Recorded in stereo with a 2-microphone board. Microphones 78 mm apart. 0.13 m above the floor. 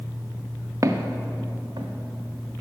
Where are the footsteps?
45° right (ahead or behind), 0.7 m; by 2.6 s 80° right, 1.8 m.